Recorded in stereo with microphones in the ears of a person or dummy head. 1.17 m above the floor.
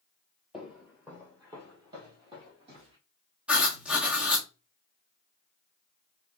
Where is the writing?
5° right (ahead or behind), 1.2 m.